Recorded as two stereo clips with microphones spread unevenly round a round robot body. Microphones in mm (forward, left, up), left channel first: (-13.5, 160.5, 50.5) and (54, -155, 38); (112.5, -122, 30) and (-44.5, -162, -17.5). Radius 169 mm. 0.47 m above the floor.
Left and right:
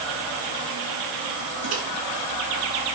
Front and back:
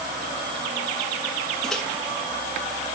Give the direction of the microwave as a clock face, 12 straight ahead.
3 o'clock.